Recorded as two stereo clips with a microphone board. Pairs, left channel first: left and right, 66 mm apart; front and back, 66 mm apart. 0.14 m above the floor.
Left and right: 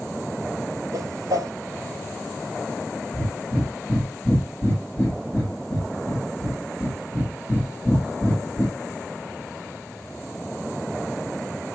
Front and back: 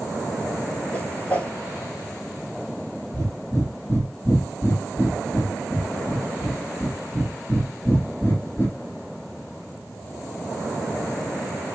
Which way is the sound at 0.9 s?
65° right.